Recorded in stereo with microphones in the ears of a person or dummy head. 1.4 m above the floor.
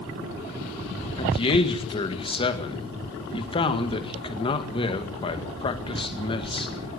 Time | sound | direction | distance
1.2 | a man speaking | 30° left (ahead or behind) | 2.0 m